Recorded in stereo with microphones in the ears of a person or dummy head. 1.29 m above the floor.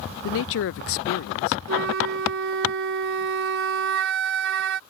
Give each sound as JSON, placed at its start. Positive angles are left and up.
{"t": 0.2, "sound": "a man speaking", "side_deg": 70}
{"t": 1.7, "sound": "a flute", "side_deg": -65}